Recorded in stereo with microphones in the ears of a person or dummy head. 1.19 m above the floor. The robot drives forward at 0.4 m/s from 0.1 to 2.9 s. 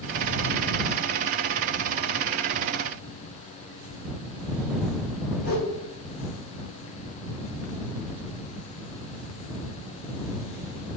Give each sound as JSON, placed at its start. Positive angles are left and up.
{"t": 5.4, "sound": "a whoosh", "side_deg": 45, "distance_m": 1.9}